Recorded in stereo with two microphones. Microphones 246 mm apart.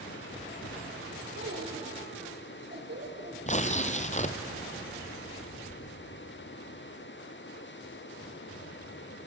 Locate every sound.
1.4 s a child speaking: 55° right (ahead or behind), 4 m; by 3.4 s 50° right (ahead or behind), 6 m
3.5 s tearing paper: 30° left (ahead or behind), 1.4 m